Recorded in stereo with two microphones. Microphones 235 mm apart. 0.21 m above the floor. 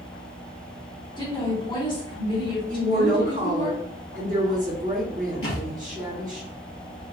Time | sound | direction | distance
1.2 | a woman speaking | 20° left (ahead or behind) | 2 m
2.7 | a woman speaking | 35° right (ahead or behind) | 1.9 m
5.4 | a thud | 65° left (ahead or behind) | 1.9 m